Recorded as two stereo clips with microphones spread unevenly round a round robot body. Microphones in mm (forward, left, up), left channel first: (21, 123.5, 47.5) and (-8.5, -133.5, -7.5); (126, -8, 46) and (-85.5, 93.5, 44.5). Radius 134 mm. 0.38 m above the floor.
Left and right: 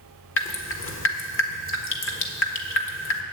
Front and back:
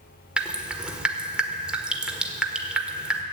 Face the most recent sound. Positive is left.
turn(degrees=70)